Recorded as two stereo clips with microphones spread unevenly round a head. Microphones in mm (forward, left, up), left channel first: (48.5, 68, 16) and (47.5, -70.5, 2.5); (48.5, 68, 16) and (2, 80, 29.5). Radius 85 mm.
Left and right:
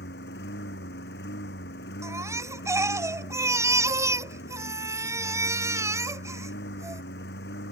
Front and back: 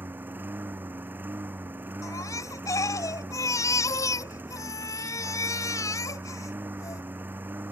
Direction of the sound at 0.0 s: 120° left.